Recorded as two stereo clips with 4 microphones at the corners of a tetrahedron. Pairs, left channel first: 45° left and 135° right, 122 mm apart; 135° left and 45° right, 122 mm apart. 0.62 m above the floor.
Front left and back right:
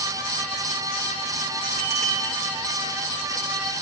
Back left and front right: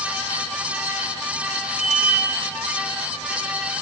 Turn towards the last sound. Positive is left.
turn(degrees=130)